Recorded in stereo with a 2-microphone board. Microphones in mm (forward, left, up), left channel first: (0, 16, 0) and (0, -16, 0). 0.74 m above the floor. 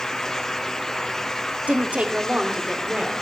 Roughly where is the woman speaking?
Right.